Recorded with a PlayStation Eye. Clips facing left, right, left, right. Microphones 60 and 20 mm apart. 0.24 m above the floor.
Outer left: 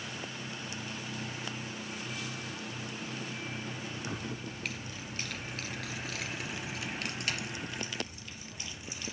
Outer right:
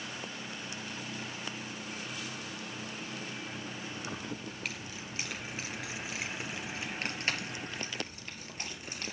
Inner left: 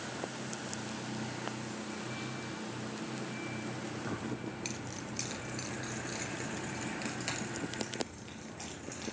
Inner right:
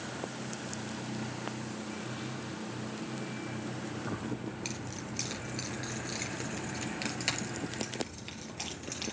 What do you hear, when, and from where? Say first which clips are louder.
4.0 s keys jangling: outer left 1 dB, inner right 2 dB; 5° left (ahead or behind), 2 m; by 9.1 s 50° right (ahead or behind), 3 m